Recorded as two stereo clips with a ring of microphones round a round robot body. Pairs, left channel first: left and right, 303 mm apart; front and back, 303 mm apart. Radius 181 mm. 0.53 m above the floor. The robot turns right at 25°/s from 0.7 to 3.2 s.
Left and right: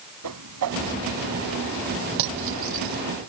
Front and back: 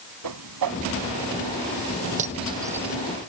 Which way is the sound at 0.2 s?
135° right.